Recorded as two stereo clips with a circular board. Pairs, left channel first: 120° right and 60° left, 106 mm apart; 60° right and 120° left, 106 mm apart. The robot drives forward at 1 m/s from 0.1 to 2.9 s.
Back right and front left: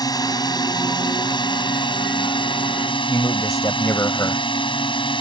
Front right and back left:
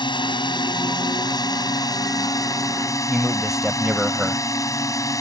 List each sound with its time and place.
0.0 s a drone: 80° right; by 5.2 s 110° right
3.1 s a man speaking: 155° right